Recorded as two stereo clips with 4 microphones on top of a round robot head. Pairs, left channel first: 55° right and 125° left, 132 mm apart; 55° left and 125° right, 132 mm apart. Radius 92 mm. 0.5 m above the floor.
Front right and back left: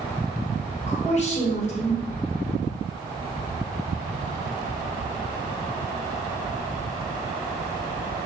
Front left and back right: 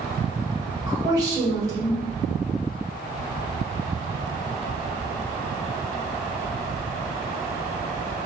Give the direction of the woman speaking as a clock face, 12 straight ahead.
2 o'clock.